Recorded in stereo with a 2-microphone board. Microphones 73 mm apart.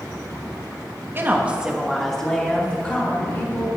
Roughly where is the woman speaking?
Right.